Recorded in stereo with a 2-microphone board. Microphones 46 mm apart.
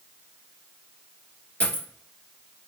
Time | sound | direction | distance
1.6 | a dropped coin | 25° left (ahead or behind) | 1.5 m